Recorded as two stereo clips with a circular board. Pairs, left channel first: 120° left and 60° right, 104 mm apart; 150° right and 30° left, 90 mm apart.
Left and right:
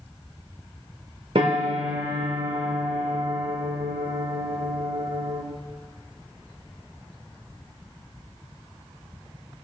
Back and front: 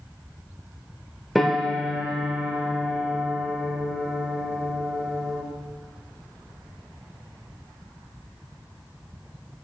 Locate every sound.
1.4 s a piano: 60° right, 1.4 m